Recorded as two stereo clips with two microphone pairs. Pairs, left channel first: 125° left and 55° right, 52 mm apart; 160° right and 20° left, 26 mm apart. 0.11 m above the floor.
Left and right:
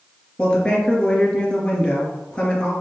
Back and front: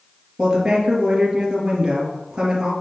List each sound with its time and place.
0.4 s a woman speaking: 60° left, 2.5 m